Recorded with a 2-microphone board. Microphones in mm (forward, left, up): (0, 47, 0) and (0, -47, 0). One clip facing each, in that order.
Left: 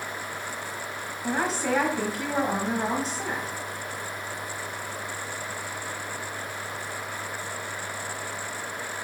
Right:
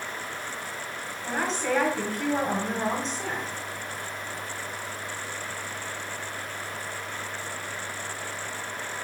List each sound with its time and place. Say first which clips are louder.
1.2 s a woman speaking: left 1 dB; 10° left (ahead or behind), 1.2 m